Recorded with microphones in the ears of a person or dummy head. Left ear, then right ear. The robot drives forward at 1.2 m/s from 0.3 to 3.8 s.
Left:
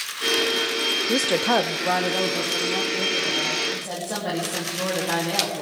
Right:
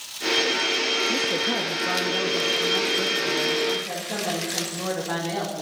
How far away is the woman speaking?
About 0.5 m.